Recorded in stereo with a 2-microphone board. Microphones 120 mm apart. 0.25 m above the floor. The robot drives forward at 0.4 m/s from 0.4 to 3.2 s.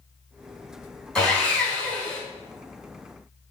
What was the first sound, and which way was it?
Sawing, 5° left (ahead or behind).